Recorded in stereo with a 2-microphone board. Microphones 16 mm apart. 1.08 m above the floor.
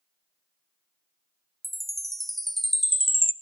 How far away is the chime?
About 0.5 m.